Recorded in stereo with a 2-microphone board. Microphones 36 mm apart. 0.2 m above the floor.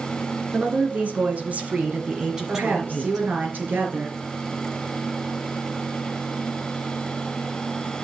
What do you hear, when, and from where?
0.5 s a woman speaking: 45° right (ahead or behind), 2.5 m; by 3.3 s centre (ahead or behind), 2 m
2.5 s a woman speaking: 65° right (ahead or behind), 4 m